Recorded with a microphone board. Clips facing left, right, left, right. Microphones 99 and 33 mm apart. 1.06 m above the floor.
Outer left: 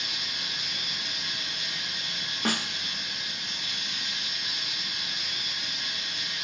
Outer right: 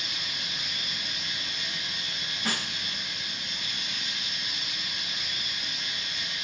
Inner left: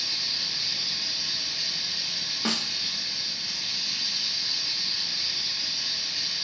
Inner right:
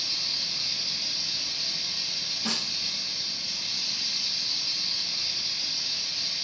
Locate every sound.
0.0 s running water: 60° left (ahead or behind), 2.5 m
2.5 s a snare drum: 65° left (ahead or behind), 1.1 m